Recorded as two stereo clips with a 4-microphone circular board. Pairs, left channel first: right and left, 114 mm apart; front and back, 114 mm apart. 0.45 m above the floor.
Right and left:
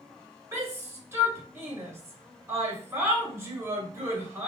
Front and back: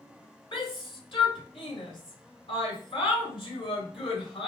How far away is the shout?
About 1.8 m.